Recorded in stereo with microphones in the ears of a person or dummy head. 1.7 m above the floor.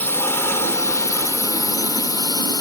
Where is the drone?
10° left (ahead or behind); by 2.6 s 20° left (ahead or behind).